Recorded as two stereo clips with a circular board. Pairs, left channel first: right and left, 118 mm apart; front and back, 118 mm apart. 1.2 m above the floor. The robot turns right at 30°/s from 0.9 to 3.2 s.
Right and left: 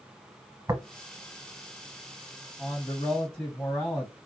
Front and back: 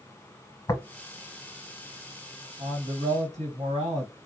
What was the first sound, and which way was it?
Tapping, 45° left.